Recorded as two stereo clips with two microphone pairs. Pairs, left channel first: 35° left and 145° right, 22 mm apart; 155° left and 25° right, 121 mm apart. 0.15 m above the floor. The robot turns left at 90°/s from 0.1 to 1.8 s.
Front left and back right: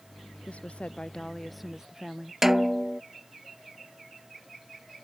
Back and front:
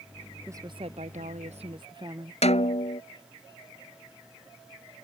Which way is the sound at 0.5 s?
45° left.